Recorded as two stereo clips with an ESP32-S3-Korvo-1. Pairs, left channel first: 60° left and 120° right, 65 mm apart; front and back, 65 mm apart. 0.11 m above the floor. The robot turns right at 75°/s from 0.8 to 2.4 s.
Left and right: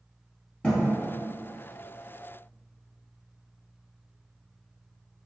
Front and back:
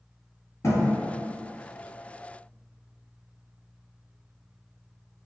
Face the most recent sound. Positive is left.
turn(degrees=110)